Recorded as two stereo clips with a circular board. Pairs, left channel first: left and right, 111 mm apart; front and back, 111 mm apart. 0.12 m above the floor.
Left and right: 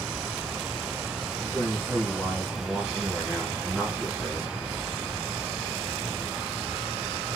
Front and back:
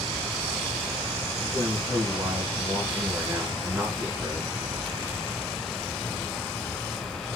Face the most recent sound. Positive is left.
turn(degrees=165)